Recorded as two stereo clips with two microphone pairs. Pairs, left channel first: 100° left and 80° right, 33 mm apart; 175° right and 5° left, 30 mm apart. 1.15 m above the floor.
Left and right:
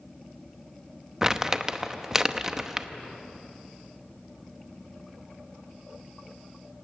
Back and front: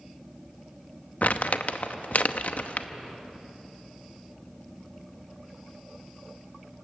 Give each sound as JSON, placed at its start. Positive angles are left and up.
{"t": 1.2, "sound": "crumpling", "azimuth_deg": -155, "distance_m": 0.8}